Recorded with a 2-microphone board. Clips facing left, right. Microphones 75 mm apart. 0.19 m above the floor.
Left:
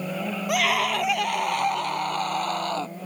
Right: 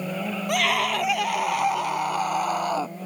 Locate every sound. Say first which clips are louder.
0.5 s a scream: even; 5° left (ahead or behind); by 3.0 s 10° right (ahead or behind)